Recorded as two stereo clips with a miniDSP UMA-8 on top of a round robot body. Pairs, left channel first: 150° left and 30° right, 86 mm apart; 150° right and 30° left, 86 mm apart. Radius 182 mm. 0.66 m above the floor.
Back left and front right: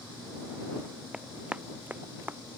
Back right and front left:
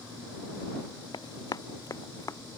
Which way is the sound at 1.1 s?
110° right.